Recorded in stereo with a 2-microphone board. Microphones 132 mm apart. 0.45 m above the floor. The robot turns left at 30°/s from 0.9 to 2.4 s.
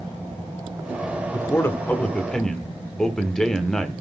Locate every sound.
1.3 s a man speaking: 40° left, 1.0 m; by 4.0 s 5° left, 1.0 m